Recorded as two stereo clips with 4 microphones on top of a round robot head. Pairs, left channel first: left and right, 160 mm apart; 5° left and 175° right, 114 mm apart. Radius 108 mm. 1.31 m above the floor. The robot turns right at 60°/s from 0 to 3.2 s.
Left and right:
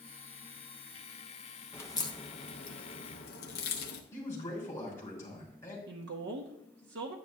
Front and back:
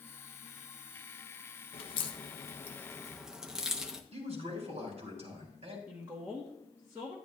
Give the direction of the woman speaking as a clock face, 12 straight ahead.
3 o'clock.